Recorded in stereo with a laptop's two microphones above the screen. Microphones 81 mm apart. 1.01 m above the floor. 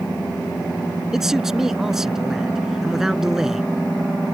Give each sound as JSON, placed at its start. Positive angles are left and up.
{"t": 1.1, "sound": "a man speaking", "side_deg": -5}